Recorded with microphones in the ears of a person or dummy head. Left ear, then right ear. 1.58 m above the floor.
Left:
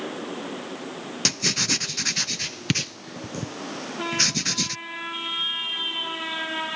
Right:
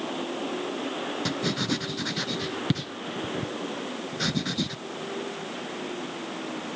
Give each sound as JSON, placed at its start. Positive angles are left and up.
{"t": 1.2, "sound": "writing", "side_deg": 75}